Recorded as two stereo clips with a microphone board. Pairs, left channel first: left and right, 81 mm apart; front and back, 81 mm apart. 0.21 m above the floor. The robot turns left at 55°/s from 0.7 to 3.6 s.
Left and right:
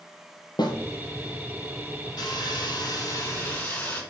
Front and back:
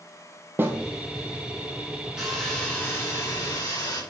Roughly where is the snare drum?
Behind left.